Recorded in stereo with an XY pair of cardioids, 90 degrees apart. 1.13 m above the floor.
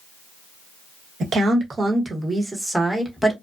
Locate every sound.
1.2 s a woman speaking: 60° right, 1.3 m; by 3.3 s 5° left, 1.3 m